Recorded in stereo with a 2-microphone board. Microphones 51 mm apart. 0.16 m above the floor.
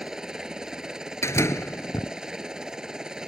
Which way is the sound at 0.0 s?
10° right (ahead or behind).